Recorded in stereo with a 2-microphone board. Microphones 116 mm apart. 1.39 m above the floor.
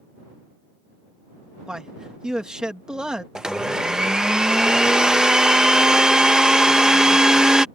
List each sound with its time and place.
1.7 s a man speaking: 5° right (ahead or behind)
3.4 s a blender: 5° right (ahead or behind)